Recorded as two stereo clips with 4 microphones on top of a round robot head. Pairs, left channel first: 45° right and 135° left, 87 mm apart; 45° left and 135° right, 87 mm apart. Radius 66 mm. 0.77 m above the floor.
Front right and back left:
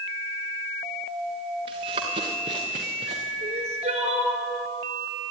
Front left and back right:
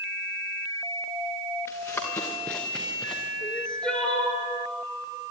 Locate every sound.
1.7 s running footsteps: 110° left, 4 m; by 3.3 s 130° left, 3.5 m
3.4 s crying: 125° left, 2 m